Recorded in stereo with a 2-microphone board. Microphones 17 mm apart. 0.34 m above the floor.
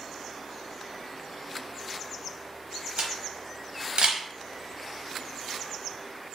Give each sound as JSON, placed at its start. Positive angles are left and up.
{"t": 3.0, "sound": "a camera shutter", "side_deg": -75, "distance_m": 0.6}